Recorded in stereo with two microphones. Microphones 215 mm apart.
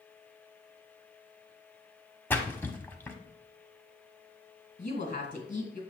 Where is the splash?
10° left (ahead or behind), 1.0 m.